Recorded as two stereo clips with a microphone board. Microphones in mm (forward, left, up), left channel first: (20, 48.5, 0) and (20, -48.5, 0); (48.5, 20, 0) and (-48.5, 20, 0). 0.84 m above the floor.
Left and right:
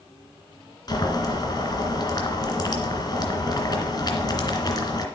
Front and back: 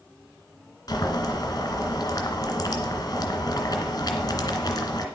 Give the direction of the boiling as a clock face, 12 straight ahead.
10 o'clock.